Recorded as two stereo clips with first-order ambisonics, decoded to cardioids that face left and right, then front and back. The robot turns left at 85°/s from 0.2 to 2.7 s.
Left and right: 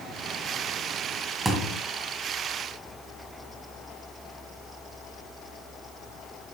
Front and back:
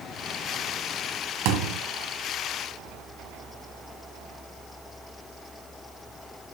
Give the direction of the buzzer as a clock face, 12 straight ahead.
I don't hear a buzzer.